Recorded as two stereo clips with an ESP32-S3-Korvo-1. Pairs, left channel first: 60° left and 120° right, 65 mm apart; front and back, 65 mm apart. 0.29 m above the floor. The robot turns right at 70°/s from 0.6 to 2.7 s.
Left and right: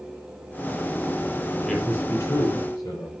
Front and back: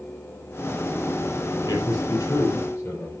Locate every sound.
1.6 s a man speaking: 30° right, 5.5 m; by 3.1 s 45° left, 5.5 m